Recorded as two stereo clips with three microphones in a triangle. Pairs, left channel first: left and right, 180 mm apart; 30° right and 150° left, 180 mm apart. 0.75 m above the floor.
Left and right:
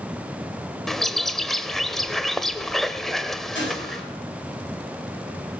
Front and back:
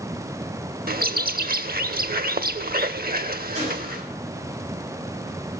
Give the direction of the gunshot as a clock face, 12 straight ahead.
9 o'clock.